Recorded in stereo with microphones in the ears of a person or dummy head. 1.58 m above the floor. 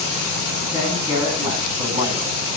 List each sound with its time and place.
0.7 s a man speaking: 20° right (ahead or behind), 9 m